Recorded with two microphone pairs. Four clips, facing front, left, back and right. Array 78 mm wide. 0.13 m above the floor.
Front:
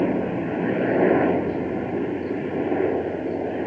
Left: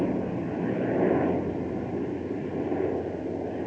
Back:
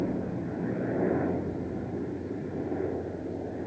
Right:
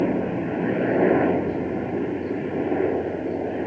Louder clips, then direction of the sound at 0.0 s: Right 5 dB, front 8 dB; 25° right.